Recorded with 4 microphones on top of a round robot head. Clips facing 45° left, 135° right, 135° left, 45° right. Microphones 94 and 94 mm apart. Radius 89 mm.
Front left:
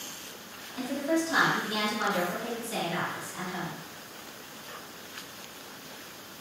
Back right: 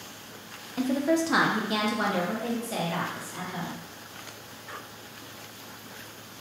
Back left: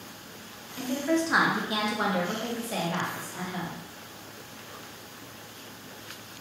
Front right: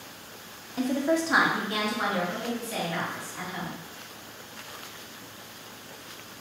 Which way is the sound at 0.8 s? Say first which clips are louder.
Back right 4 dB, front right 2 dB; 95° right.